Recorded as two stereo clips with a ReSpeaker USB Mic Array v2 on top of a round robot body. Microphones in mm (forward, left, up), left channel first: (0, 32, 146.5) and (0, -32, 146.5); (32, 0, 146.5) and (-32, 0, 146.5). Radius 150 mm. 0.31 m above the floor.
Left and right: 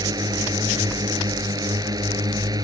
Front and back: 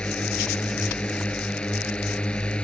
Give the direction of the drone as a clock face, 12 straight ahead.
3 o'clock.